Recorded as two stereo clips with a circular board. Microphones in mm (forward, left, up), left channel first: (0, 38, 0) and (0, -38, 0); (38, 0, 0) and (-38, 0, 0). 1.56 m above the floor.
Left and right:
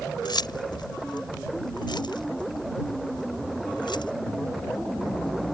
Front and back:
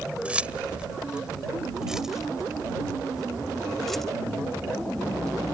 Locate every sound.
0.2 s keys jangling: 105° left; by 4.1 s 85° left